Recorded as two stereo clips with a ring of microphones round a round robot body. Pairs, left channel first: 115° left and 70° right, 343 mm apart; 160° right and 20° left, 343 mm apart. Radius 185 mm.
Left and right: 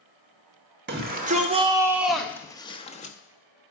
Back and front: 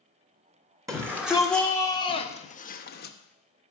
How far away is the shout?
About 1.2 m.